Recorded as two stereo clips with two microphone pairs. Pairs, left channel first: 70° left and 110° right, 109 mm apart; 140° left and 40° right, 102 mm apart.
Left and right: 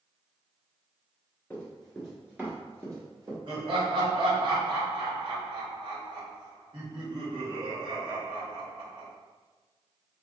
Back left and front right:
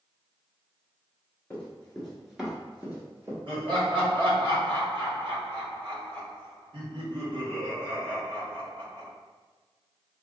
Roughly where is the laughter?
Right.